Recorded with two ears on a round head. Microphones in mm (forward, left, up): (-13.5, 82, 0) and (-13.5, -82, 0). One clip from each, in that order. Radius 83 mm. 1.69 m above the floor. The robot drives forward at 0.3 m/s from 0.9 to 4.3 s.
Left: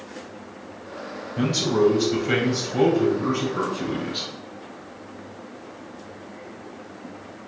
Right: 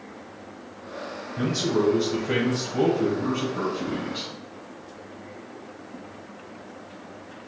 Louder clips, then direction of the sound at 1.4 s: Left 3 dB; 65° left (ahead or behind).